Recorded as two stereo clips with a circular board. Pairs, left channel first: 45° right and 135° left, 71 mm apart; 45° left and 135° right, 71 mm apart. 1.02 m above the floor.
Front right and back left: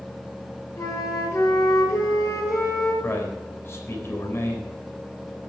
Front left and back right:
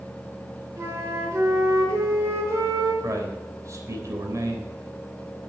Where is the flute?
90° right, 5.5 m.